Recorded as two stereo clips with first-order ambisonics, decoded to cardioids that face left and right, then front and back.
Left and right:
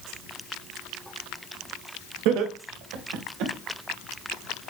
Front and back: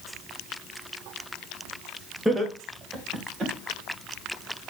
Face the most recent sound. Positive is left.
turn(degrees=-115)